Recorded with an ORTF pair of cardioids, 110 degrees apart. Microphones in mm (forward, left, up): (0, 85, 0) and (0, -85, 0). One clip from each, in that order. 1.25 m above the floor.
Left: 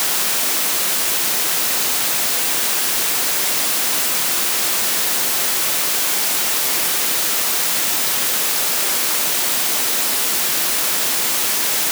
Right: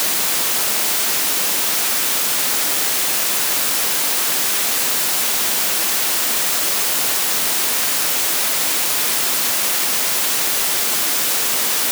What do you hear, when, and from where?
Only background noise.